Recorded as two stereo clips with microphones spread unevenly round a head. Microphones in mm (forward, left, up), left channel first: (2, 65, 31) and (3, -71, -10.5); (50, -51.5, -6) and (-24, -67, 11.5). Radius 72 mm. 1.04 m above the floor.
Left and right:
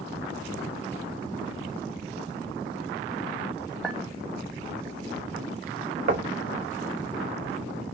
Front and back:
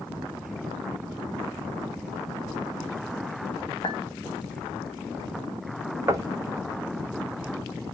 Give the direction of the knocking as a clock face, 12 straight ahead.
4 o'clock.